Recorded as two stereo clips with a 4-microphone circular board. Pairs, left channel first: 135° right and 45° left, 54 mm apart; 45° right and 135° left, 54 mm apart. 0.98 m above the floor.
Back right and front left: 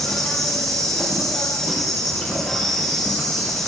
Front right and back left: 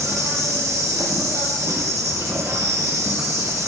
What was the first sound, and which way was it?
An insect, 145° left.